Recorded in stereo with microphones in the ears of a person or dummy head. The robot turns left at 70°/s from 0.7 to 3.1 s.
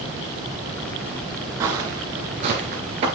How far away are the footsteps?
About 1.5 m.